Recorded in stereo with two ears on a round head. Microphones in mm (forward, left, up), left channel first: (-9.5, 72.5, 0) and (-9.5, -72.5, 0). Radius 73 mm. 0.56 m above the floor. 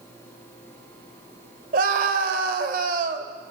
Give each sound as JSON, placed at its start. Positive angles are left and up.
{"t": 1.7, "sound": "a scream", "side_deg": -50, "distance_m": 2.5}